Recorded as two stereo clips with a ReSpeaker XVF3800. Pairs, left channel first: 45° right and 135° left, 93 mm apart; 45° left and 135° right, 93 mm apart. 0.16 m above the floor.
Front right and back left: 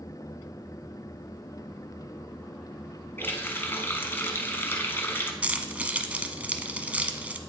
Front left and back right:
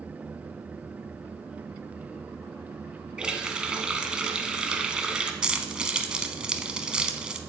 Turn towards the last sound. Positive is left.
turn(degrees=170)